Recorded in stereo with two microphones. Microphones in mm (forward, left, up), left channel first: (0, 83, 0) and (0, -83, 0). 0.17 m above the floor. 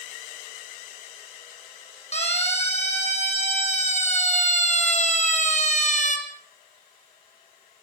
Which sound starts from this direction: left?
A siren, at 2.1 s.